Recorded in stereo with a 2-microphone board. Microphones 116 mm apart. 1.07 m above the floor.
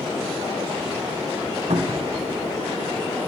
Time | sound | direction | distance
1.7 | a cupboard door | 80° right | 0.8 m